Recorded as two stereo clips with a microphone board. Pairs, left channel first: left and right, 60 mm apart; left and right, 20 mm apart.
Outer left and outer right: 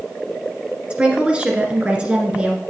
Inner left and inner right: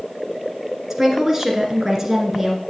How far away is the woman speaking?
About 1.7 m.